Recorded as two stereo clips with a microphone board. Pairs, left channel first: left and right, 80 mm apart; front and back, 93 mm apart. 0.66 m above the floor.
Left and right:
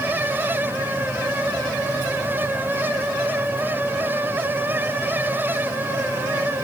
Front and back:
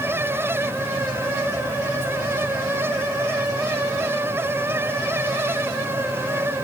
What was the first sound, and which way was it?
Only background noise.